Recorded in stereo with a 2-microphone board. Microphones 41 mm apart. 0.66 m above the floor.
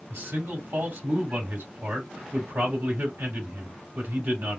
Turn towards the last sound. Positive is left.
turn(degrees=-65)  # may be behind; listen again after turning